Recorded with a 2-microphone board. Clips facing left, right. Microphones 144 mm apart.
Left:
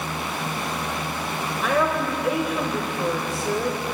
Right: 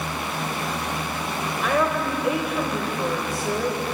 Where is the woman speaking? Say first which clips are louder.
Even; centre (ahead or behind), 0.8 m.